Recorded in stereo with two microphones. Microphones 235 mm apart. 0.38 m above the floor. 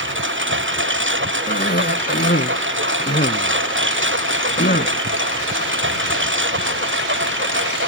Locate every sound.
0.0 s a lawn mower: 55° right (ahead or behind)
1.5 s a cough: 45° left (ahead or behind)